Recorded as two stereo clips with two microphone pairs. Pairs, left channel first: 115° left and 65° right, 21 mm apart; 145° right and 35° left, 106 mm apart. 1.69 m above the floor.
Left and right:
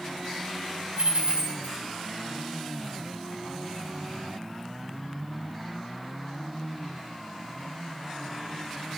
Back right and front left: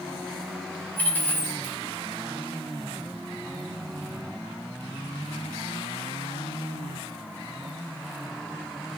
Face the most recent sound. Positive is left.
turn(degrees=-75)